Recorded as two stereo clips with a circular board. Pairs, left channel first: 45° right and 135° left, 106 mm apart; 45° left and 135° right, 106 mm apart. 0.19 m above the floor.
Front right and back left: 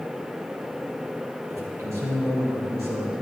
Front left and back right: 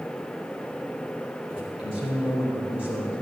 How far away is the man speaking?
About 4.5 m.